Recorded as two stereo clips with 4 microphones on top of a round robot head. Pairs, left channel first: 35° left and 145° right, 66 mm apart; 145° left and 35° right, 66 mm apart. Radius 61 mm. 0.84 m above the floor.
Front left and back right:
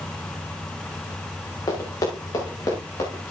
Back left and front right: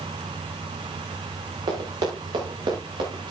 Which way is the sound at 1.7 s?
10° right.